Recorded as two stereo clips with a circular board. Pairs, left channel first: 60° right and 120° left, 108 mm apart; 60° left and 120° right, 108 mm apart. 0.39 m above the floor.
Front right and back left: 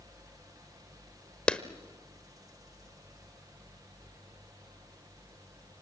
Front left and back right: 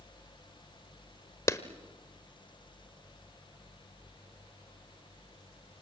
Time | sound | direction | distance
1.5 | a clap | 15° left | 1.0 m